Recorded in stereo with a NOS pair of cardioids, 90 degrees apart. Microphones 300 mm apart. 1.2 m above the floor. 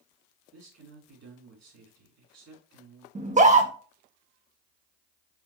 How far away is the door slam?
No door slam in this recording.